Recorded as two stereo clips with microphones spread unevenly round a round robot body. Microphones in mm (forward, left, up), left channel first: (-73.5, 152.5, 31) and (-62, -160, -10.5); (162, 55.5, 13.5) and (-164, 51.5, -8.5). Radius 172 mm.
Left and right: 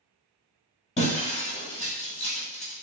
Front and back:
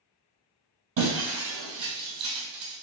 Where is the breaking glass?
160° left, 1.9 m.